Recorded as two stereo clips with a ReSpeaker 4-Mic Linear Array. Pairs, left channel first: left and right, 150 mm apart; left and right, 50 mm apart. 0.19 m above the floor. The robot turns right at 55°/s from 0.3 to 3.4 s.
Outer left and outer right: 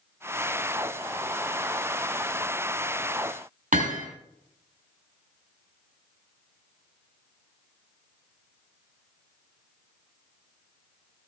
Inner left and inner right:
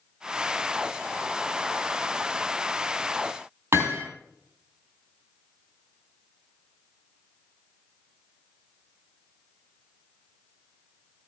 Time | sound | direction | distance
3.7 | hammering | 55° right (ahead or behind) | 5 m